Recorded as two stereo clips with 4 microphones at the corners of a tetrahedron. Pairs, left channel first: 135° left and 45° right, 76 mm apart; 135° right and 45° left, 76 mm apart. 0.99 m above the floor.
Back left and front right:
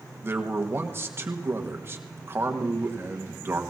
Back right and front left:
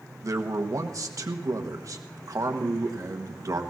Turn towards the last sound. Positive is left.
turn(degrees=10)